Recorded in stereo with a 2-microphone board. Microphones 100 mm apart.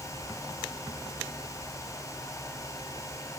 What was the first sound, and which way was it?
Only background noise.